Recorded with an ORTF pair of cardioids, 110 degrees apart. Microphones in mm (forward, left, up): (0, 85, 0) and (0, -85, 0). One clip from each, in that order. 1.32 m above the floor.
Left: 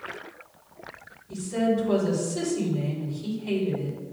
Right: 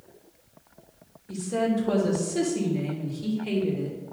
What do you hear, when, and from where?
1.3 s a woman speaking: 60° right, 3 m